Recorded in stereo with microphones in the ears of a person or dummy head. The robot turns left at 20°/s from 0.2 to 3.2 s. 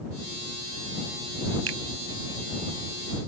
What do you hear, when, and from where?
1.7 s a finger snap: 85° right; by 1.8 s 80° right